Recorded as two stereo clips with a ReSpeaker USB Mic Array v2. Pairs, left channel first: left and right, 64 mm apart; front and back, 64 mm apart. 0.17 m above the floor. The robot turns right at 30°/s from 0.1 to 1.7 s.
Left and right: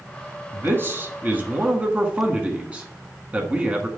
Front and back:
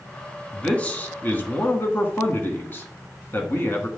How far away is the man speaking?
About 1.3 m.